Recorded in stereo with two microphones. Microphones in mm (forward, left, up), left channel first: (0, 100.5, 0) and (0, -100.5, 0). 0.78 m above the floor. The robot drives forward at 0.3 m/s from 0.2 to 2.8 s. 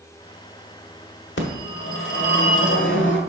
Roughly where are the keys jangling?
I don't hear keys jangling.